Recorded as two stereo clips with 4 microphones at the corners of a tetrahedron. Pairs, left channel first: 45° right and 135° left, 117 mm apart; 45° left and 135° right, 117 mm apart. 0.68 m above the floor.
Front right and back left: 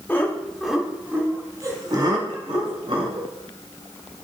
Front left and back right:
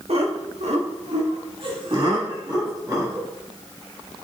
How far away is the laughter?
About 1.6 m.